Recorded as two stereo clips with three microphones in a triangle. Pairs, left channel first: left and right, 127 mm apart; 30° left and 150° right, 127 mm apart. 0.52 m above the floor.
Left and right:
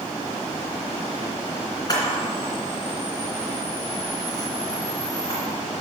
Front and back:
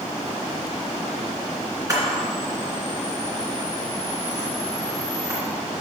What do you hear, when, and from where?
1.9 s a camera shutter: 150° left, 2.5 m